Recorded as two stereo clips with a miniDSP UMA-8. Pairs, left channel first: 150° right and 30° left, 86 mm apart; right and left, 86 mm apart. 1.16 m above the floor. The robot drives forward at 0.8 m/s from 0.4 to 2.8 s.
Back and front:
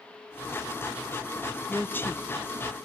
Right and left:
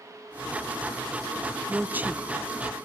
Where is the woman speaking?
130° left, 0.5 m; by 2.2 s 160° left, 0.8 m.